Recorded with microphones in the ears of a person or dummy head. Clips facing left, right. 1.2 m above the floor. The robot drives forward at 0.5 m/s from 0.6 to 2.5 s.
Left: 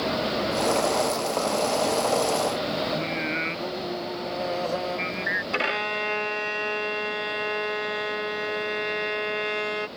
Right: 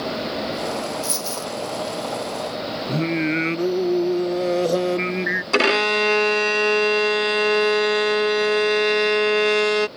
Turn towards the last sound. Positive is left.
turn(degrees=-65)  # may be behind; listen again after turning